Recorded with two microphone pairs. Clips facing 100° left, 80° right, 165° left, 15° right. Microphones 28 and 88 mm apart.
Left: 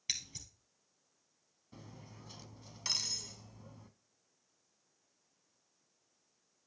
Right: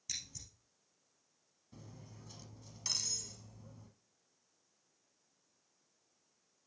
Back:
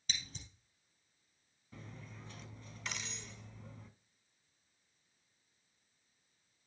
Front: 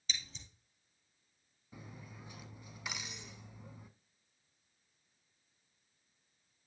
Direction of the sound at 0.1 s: 130° left.